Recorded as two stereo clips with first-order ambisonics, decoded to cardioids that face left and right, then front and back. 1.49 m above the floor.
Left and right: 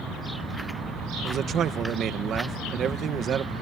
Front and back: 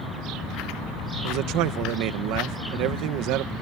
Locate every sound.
1.2 s a man speaking: 150° right